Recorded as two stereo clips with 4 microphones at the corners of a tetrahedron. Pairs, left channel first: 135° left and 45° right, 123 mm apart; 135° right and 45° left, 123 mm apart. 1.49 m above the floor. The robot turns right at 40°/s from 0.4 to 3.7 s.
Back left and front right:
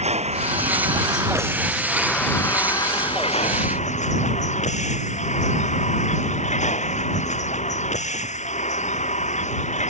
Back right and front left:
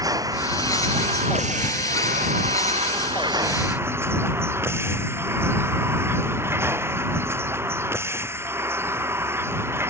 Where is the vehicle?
15° right; by 9.9 s 115° left.